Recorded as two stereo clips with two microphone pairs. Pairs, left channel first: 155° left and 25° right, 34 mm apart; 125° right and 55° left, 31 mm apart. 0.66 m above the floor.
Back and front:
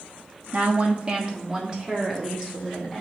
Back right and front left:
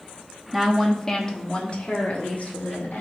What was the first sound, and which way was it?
A woman speaking, 30° right.